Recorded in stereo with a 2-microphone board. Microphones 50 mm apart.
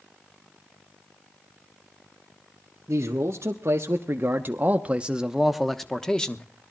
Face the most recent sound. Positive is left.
turn(degrees=20)  # may be behind; listen again after turning